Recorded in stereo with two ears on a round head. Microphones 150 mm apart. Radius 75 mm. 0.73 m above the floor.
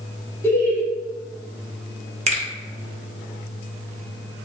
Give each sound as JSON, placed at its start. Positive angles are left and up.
{"t": 0.4, "sound": "laughter", "side_deg": 15, "distance_m": 1.0}
{"t": 2.3, "sound": "a finger snap", "side_deg": -40, "distance_m": 0.8}